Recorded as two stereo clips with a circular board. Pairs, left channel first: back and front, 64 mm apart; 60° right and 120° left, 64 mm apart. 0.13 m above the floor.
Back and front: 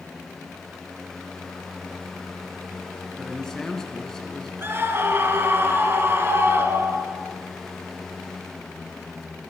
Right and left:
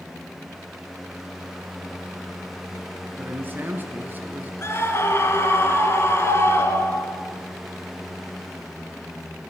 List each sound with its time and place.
3.2 s a man speaking: 105° left, 1.8 m
4.6 s a scream: 35° right, 1.8 m